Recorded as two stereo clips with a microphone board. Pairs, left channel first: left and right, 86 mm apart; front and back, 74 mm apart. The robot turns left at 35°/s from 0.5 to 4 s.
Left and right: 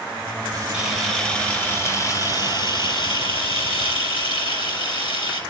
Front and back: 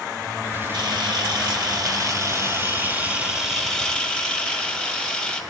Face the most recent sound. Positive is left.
turn(degrees=80)